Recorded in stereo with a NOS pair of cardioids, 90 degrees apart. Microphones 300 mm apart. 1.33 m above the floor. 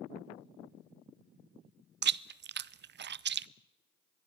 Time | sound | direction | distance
2.0 | chewing | 35° right | 0.6 m